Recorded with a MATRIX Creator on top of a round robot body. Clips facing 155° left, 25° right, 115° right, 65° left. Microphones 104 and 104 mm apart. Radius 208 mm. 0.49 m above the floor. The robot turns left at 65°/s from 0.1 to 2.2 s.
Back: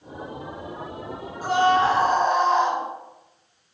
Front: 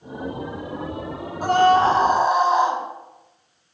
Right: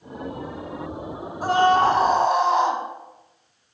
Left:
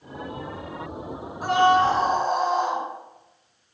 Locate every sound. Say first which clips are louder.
1.4 s a scream: front 3 dB, right 1 dB; 55° right, 4.5 m; by 2.8 s 105° right, 4.5 m